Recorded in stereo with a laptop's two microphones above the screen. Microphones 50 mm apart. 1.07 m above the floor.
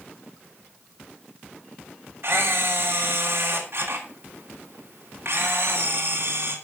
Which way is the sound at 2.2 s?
55° right (ahead or behind).